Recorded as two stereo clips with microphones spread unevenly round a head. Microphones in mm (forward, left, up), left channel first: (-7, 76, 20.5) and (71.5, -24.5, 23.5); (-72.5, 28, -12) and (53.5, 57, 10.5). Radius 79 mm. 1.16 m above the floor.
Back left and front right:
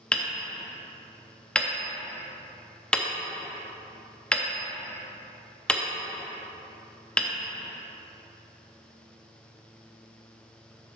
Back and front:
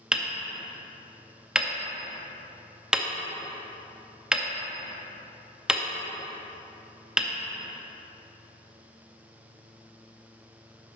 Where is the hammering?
55° left, 0.5 m.